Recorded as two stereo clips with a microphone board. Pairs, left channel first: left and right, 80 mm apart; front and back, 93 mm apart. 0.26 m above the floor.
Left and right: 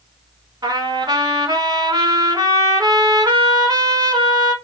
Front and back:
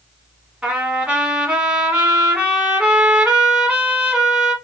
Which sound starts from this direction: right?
A trumpet, at 0.6 s.